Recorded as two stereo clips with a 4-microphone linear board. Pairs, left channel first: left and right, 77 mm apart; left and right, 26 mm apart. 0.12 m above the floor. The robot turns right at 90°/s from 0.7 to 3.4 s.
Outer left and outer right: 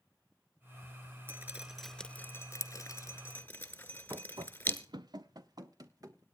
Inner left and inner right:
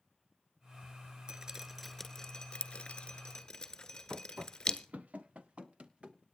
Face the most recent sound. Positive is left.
turn(degrees=-50)  # may be behind; listen again after turning